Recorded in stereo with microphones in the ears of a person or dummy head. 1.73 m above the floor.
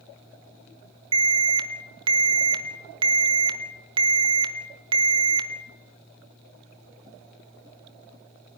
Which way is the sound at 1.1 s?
25° right (ahead or behind).